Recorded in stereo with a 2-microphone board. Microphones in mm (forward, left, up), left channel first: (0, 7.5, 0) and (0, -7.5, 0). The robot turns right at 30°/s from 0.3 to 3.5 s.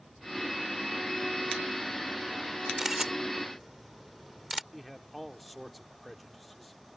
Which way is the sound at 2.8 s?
30° right (ahead or behind).